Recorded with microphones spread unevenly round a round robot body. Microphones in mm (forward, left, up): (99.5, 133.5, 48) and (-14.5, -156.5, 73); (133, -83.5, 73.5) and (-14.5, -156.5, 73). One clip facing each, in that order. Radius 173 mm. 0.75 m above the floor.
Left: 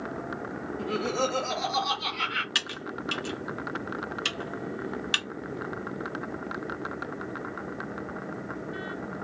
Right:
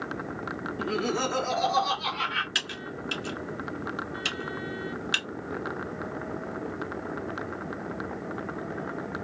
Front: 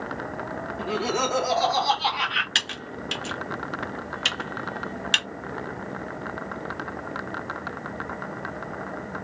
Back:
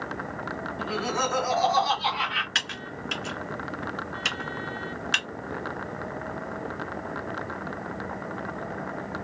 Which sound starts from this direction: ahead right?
Laughter, at 0.8 s.